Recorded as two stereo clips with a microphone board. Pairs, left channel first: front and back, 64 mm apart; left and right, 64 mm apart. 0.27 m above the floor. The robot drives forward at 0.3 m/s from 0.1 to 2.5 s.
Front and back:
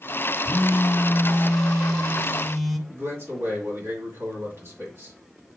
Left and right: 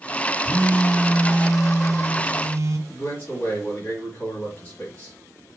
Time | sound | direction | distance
0.5 | a phone buzzing | 40° right | 1.0 m
2.9 | a man speaking | 150° left | 1.8 m